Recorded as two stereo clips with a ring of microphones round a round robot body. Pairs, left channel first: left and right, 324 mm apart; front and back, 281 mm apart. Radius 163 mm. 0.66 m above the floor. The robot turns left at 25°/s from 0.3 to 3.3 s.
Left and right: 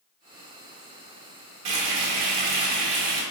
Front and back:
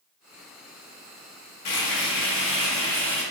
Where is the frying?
50° right, 2.5 m; by 3.2 s 90° right, 2.5 m.